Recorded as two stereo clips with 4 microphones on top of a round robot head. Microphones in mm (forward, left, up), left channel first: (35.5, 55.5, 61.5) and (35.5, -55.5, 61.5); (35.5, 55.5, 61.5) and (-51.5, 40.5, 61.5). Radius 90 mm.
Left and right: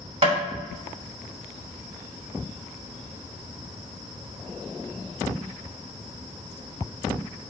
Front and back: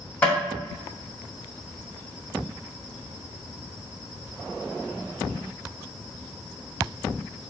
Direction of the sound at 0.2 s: 65° right.